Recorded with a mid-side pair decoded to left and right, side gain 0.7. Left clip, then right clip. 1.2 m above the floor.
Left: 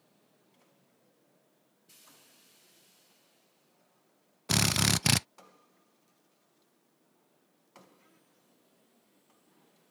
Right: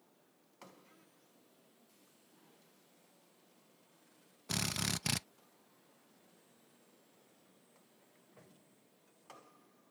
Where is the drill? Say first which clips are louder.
Left 10 dB; 40° left.